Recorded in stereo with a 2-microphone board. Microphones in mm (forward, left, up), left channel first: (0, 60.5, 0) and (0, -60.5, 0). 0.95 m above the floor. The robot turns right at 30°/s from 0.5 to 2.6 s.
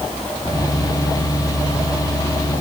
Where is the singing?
No singing in this recording.